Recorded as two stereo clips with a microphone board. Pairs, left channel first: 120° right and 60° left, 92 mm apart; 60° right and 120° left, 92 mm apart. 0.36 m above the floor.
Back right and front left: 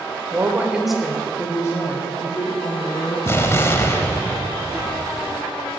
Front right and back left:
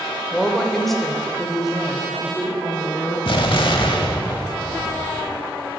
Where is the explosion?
65° right, 0.8 m.